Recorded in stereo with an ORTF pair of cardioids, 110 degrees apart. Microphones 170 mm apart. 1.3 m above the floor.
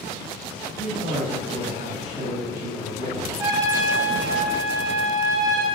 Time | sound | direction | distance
0.8 | a man speaking | 40° right | 1.5 m
3.4 | a trumpet | 20° right | 0.6 m